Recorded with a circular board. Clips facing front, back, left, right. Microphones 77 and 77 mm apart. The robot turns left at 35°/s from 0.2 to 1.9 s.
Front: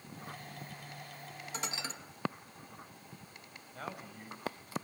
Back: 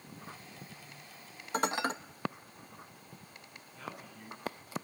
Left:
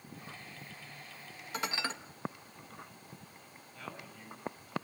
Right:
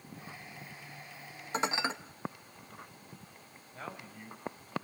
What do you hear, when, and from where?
1.5 s dishes clattering: 150° right, 0.8 m; by 1.9 s 160° right, 0.8 m
3.7 s a man speaking: 35° right, 6 m